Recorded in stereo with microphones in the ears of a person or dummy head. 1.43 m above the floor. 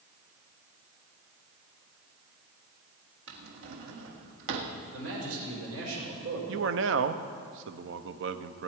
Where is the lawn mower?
No lawn mower in this recording.